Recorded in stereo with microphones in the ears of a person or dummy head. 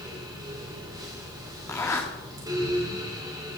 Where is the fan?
20° right (ahead or behind), 2 m.